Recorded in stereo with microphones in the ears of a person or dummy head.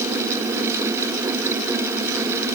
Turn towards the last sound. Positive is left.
No sound to turn to.